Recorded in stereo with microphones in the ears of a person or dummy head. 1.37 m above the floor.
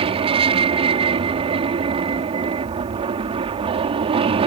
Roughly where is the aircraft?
Right.